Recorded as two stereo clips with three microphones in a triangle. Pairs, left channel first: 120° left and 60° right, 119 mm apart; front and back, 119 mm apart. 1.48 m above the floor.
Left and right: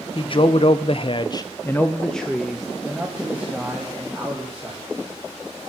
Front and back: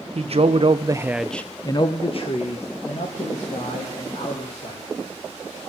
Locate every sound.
0.1 s a man speaking: 160° left, 1.0 m; by 4.9 s 15° left, 3 m